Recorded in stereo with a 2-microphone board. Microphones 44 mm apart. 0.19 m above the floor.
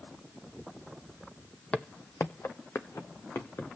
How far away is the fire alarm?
I don't hear a fire alarm.